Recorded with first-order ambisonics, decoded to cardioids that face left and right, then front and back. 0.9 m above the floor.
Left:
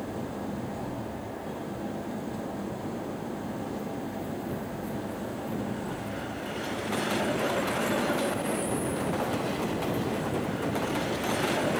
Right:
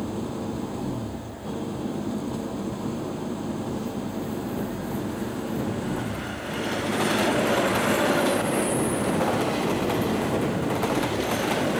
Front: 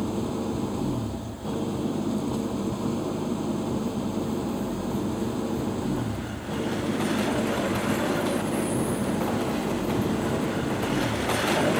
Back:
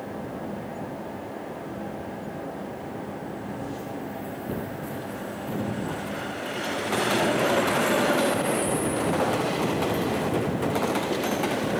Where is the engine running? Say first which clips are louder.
Right 4 dB, front 4 dB; 25° right.